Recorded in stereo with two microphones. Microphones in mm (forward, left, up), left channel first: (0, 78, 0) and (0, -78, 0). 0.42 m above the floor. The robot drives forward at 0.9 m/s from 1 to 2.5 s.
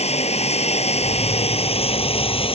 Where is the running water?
40° left (ahead or behind); by 2.6 s 35° left (ahead or behind).